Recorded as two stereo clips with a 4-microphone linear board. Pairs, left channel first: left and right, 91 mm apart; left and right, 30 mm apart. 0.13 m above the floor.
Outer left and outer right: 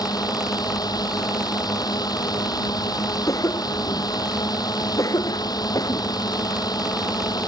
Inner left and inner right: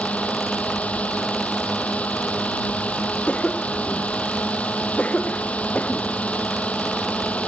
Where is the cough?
40° left (ahead or behind).